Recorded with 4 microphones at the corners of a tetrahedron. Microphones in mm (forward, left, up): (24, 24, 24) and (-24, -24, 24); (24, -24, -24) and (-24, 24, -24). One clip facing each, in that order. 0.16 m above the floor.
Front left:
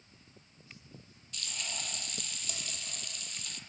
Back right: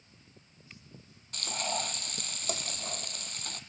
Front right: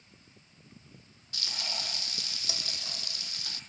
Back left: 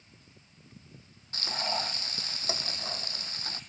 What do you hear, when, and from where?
1.3 s frying: 170° right, 1.0 m